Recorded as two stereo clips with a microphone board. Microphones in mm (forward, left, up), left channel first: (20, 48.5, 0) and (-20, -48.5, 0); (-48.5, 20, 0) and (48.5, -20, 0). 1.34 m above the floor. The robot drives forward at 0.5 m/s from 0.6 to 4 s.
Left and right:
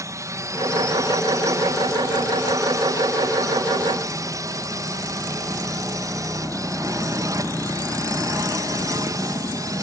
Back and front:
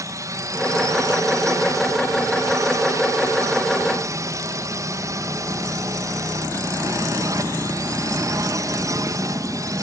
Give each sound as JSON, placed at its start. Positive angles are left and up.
{"t": 0.0, "sound": "a drone", "azimuth_deg": -65}